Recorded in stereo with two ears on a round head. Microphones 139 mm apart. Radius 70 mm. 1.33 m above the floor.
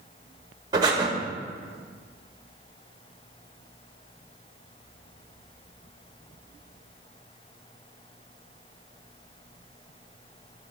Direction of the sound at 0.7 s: 25° right (ahead or behind).